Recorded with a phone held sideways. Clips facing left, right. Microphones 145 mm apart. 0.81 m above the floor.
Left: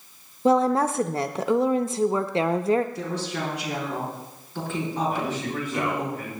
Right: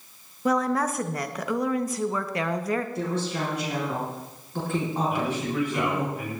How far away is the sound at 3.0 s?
About 7 m.